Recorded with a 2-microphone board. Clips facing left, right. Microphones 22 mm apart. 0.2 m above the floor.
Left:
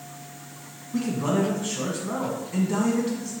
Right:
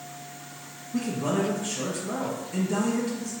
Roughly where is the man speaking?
Left.